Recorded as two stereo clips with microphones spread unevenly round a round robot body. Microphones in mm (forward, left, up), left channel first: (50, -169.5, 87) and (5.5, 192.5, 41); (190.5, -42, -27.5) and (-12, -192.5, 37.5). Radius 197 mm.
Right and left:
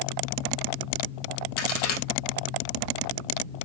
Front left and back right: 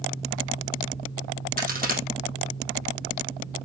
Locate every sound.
1.6 s a crack: 90° right, 3 m